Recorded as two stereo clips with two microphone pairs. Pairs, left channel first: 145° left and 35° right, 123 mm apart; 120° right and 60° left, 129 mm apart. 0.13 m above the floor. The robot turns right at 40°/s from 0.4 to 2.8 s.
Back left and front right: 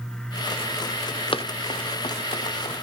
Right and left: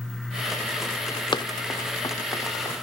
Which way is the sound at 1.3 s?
175° right.